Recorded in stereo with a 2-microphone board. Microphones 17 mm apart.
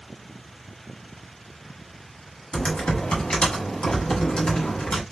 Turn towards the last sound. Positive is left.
turn(degrees=65)  # may be behind; listen again after turning